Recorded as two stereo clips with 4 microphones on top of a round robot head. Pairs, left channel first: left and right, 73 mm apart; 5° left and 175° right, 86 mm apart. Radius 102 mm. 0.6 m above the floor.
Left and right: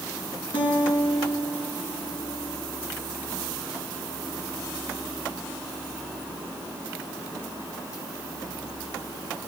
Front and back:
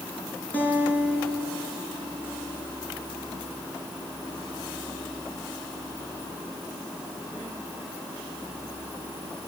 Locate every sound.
0.5 s a guitar: 80° left, 7 m